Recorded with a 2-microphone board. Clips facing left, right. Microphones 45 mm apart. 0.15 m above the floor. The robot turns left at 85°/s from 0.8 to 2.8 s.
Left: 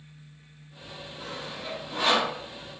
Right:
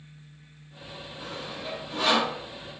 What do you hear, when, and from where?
1.2 s sawing: 25° right (ahead or behind), 1.7 m; by 2.3 s 25° left (ahead or behind), 1.7 m